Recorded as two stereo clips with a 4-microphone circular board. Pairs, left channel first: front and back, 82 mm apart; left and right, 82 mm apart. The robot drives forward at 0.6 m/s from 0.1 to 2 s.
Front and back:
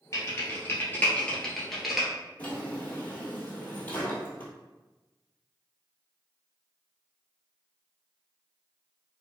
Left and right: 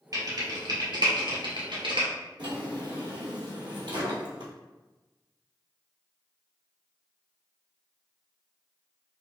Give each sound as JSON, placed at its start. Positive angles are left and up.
{"t": 0.1, "sound": "typing on a keyboard", "azimuth_deg": -50, "distance_m": 1.5}
{"t": 2.4, "sound": "a drawer", "azimuth_deg": -65, "distance_m": 1.1}